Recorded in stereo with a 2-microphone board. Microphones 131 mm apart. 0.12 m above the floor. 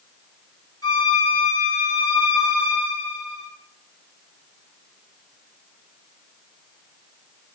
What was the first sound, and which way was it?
A violin, 30° left (ahead or behind).